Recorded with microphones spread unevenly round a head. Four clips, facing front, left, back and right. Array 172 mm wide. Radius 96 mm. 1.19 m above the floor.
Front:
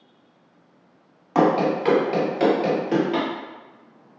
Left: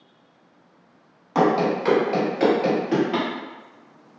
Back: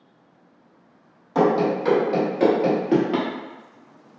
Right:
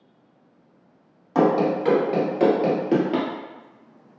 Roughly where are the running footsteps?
Ahead left.